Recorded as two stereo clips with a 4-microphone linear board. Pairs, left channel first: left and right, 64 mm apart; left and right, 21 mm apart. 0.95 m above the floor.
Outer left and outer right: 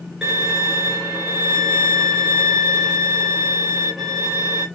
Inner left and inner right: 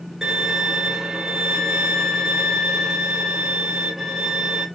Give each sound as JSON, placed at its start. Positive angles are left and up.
{"t": 0.2, "sound": "a violin", "side_deg": -10, "distance_m": 2.5}